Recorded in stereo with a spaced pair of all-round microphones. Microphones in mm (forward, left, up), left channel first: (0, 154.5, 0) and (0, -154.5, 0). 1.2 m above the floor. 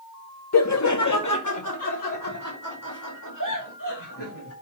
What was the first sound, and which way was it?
Laughter, 55° left (ahead or behind).